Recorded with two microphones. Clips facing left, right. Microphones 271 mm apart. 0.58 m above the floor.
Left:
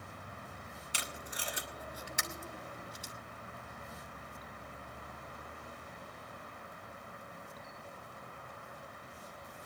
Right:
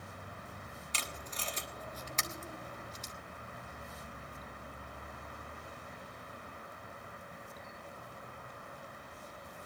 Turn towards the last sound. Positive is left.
turn(degrees=10)  # may be behind; listen again after turning